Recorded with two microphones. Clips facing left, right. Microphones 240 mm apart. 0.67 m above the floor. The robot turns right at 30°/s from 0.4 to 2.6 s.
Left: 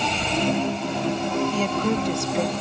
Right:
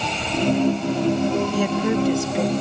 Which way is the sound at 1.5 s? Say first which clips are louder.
Right 3 dB; 15° right (ahead or behind).